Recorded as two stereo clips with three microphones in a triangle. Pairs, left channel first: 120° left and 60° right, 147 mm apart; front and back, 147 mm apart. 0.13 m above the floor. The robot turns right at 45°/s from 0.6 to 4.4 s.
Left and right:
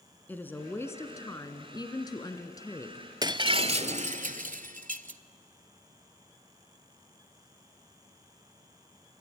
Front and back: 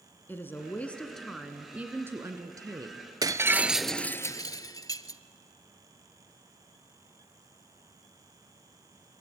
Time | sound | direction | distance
0.3 | a woman speaking | 60° left | 1.6 m
3.2 | breaking glass | 115° right | 0.5 m